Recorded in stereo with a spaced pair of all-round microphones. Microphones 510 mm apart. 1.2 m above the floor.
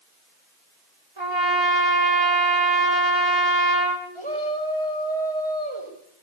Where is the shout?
65° right (ahead or behind), 5 m.